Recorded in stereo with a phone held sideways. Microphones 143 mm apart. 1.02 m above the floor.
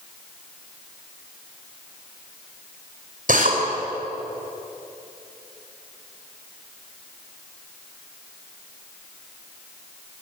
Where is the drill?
70° right (ahead or behind), 5.5 m.